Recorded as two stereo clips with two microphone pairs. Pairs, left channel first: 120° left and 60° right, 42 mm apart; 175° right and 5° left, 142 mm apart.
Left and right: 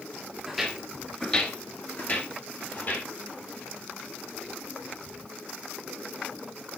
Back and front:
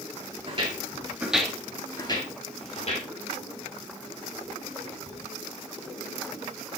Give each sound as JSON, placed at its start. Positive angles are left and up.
{"t": 0.5, "sound": "footsteps", "azimuth_deg": 20, "distance_m": 2.0}